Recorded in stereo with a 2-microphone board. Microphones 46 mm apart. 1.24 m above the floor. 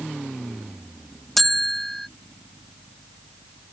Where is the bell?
5° left (ahead or behind).